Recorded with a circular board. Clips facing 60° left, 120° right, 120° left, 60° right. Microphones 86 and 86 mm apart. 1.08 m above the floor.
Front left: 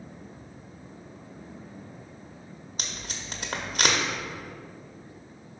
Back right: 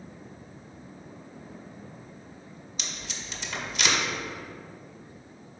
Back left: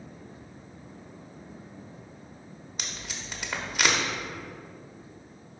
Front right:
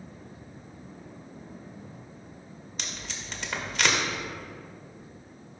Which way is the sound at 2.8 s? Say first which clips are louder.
Front left 1 dB, even; 45° left.